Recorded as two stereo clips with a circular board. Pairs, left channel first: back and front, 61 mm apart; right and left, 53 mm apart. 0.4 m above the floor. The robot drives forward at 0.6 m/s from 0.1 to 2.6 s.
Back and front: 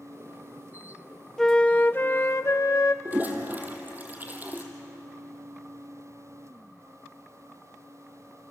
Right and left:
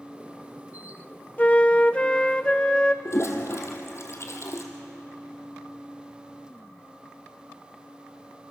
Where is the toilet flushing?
60° right, 2.5 m.